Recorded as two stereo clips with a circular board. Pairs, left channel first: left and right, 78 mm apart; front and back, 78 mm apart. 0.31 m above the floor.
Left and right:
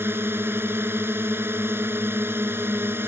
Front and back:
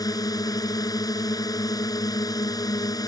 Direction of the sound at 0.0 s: 30° right.